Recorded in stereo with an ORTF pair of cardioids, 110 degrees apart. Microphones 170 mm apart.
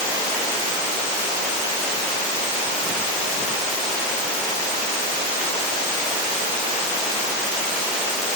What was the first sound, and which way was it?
Only background noise.